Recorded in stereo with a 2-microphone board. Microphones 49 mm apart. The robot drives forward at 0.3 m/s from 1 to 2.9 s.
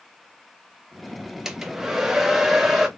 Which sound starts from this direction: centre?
A hair dryer, at 1.4 s.